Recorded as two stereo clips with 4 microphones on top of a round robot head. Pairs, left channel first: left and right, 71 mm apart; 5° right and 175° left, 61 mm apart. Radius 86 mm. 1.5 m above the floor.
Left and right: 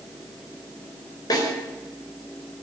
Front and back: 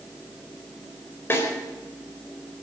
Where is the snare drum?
50° left, 4.5 m.